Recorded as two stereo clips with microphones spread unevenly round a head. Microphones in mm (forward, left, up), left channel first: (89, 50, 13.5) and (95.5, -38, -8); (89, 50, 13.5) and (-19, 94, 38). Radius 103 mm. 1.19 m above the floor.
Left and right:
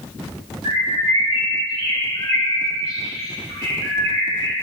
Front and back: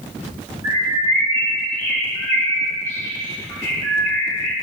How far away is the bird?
About 1.8 m.